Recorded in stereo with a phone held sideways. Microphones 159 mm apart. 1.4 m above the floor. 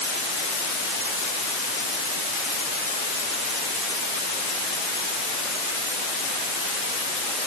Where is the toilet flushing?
No toilet flushing in this recording.